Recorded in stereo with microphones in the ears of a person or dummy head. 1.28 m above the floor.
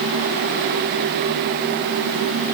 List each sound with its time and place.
Only background noise.